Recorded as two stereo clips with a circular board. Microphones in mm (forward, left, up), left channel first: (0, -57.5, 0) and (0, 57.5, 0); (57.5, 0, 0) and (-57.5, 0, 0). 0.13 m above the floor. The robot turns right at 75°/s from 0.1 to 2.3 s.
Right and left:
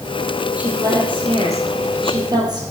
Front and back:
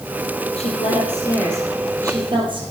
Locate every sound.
0.6 s a woman speaking: 10° left, 4.5 m; by 2.6 s 140° left, 4.5 m